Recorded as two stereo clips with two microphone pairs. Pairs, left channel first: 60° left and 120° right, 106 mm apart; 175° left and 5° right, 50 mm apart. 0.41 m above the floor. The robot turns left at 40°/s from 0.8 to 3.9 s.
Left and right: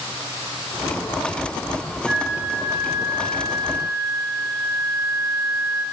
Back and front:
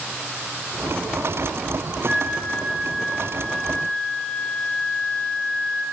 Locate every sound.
2.1 s a flute: 50° right, 0.9 m; by 5.8 s 125° right, 0.9 m